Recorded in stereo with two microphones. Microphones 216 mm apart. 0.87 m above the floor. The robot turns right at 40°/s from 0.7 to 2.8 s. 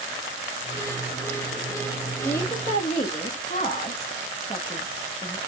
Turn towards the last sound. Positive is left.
turn(degrees=30)  # may be behind; listen again after turning